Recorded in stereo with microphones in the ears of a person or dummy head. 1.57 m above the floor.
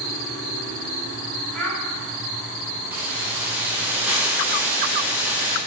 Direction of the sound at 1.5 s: 5° left (ahead or behind).